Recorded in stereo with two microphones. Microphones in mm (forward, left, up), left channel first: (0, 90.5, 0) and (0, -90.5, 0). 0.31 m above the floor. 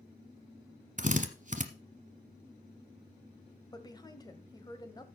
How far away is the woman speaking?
About 1.3 m.